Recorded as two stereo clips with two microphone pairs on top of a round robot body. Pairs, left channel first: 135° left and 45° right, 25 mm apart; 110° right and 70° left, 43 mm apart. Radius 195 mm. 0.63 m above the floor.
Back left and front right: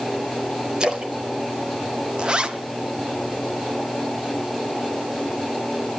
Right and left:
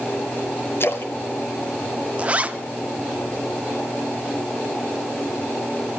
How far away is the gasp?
No gasp in this recording.